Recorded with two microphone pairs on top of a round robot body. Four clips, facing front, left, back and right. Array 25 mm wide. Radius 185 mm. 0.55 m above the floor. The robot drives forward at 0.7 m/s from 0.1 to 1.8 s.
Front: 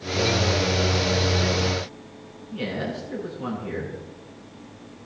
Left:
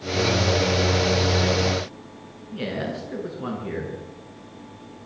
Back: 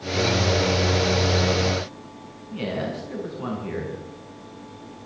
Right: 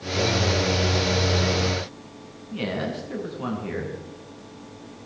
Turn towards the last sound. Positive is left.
turn(degrees=-115)